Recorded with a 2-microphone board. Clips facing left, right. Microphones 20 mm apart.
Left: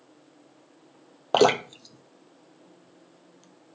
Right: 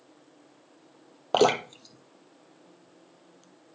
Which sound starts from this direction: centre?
Dripping, at 1.3 s.